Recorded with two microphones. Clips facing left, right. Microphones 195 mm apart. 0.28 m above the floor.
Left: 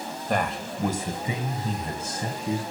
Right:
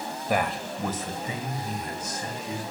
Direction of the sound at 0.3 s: 10° right (ahead or behind).